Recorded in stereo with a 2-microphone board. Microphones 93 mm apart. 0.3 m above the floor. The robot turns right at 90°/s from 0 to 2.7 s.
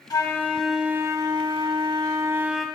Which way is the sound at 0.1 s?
125° left.